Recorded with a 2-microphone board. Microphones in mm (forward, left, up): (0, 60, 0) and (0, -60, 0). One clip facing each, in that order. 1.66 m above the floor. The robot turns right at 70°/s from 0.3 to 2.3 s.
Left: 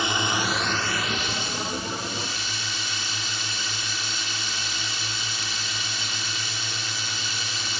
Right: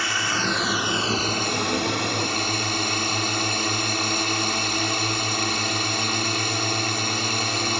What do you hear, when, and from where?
0.0 s a drone: 160° left; by 7.8 s 60° right